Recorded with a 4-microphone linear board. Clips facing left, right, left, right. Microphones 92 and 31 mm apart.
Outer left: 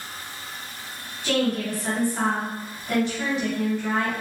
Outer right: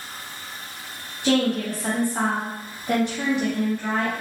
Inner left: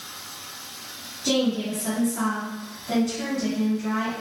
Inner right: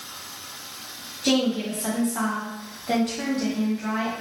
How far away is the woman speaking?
About 1.7 m.